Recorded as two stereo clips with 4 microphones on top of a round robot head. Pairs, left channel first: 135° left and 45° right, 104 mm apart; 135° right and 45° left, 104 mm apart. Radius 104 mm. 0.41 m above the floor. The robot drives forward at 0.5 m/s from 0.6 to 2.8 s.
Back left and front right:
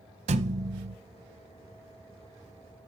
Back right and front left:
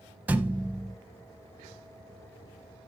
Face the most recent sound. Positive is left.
turn(degrees=-135)